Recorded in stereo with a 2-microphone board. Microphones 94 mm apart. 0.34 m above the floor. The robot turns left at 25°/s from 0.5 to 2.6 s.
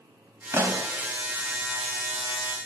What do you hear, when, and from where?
0.5 s a pop: 30° right (ahead or behind), 1.9 m; by 0.9 s 40° right (ahead or behind), 1.9 m